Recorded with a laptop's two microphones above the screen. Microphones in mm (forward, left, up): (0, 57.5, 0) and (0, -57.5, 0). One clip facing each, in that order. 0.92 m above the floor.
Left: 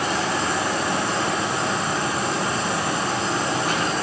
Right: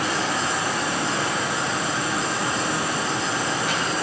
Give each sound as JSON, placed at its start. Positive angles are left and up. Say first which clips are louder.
{"t": 0.0, "sound": "a fan", "louder": "left 1 dB", "side_deg": 50, "distance_m": 4.0}